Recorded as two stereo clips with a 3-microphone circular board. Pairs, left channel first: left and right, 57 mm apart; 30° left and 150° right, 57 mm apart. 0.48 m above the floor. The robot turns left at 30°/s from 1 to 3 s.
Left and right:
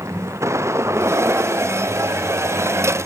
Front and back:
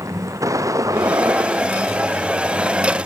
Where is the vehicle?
125° right; by 3.1 s 165° left.